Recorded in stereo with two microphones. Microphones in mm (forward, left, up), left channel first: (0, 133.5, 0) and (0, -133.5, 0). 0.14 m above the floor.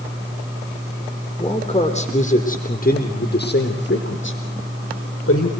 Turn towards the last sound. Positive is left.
turn(degrees=60)  # may be behind; listen again after turning